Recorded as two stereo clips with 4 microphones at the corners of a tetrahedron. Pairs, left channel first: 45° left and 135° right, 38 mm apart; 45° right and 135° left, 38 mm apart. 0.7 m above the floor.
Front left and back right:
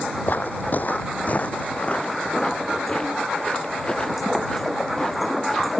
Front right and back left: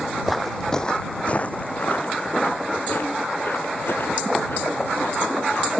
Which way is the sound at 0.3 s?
50° left.